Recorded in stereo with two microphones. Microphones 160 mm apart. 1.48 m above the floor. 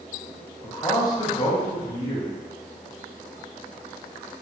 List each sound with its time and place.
0.6 s a man speaking: 25° left (ahead or behind), 0.6 m